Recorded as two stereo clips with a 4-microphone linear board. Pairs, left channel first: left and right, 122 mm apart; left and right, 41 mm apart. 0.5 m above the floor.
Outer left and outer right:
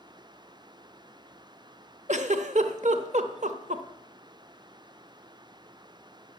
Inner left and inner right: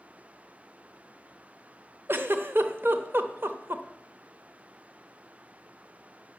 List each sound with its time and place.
2.1 s a giggle: 70° right (ahead or behind), 0.8 m